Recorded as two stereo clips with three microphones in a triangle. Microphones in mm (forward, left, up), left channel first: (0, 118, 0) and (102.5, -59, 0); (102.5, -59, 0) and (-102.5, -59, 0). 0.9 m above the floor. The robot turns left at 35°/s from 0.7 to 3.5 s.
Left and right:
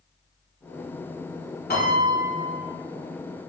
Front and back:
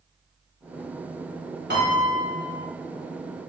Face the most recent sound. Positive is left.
turn(degrees=90)